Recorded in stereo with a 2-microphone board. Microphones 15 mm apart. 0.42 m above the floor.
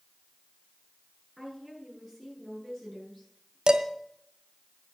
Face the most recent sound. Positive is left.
turn(degrees=-60)  # may be behind; listen again after turning